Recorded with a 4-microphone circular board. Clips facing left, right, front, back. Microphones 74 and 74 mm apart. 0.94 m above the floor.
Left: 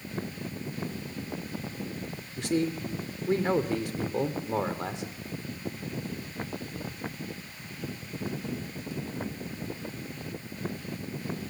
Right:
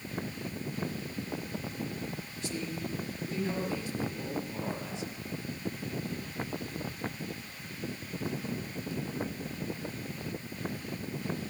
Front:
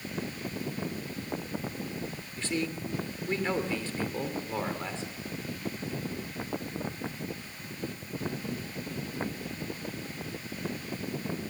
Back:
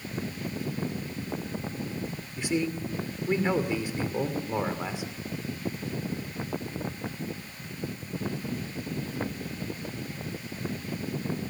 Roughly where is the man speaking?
Left.